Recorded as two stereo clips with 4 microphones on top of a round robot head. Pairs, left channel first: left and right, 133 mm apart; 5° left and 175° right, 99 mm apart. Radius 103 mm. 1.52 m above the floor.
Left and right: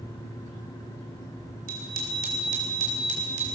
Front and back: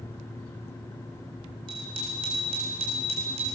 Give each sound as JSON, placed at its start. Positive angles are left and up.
{"t": 1.7, "sound": "a bicycle bell", "azimuth_deg": -120, "distance_m": 3.5}